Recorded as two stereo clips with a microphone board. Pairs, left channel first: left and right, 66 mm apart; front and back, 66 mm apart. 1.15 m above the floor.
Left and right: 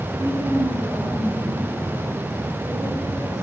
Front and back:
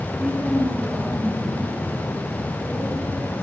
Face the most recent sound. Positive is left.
turn(degrees=-120)